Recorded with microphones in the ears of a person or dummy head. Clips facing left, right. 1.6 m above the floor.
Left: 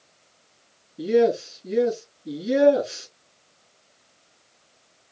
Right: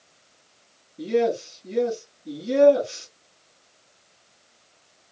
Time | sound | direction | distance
1.0 | a man speaking | 20° left (ahead or behind) | 3 m